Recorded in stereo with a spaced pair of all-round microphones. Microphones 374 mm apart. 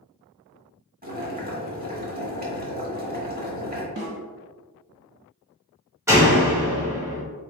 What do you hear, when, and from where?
1.0 s boiling: 25° right (ahead or behind), 1.1 m
4.0 s a snare drum: 55° right (ahead or behind), 1.7 m
6.1 s a door slam: 5° right (ahead or behind), 1.5 m